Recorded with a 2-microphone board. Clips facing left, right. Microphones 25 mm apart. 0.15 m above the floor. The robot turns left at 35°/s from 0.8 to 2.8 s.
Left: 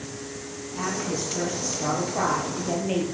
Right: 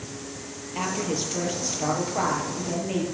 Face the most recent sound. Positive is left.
turn(degrees=160)